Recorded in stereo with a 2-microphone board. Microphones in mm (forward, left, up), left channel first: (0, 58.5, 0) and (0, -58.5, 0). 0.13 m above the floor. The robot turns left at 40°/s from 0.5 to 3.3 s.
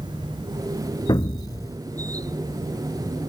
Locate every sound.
1.1 s an explosion: 40° left (ahead or behind); by 1.8 s 30° left (ahead or behind)